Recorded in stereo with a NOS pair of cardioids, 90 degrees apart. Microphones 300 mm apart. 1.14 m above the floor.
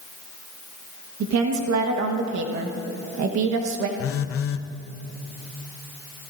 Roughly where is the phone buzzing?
Ahead left.